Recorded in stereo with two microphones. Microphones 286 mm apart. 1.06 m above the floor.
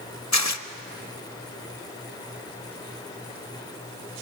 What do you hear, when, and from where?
0.3 s tearing paper: 70° left (ahead or behind), 0.8 m